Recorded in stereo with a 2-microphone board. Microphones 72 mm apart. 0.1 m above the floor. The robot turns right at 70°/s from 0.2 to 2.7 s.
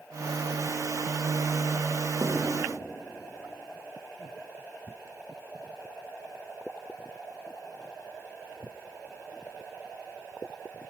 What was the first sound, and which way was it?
Writing, 55° right (ahead or behind).